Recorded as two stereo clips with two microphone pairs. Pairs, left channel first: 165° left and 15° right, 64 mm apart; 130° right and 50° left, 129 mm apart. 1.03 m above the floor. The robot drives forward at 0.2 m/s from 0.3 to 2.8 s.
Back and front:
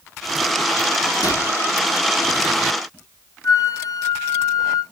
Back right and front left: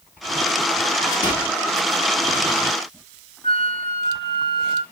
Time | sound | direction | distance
1.2 | a microwave | 175° left | 2.0 m
3.4 | a flute | 175° right | 1.0 m